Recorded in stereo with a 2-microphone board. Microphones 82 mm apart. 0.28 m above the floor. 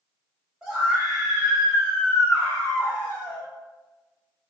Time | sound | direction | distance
0.6 | a scream | 10° right (ahead or behind) | 1.4 m